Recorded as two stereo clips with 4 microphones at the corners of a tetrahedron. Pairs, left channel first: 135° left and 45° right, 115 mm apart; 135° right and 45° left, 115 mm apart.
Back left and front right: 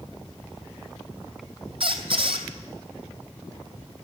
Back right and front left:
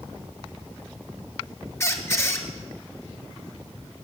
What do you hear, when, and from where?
1.8 s a squeak: 75° right, 1.0 m